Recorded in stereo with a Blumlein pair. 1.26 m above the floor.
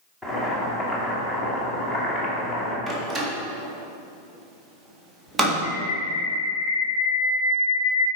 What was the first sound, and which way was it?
Boiling, 10° left.